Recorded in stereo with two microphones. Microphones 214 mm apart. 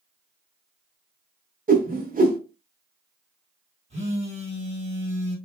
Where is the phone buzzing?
30° right (ahead or behind), 1.6 m.